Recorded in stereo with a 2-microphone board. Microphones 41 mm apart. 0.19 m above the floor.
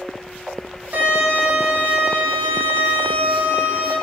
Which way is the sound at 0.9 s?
50° right (ahead or behind).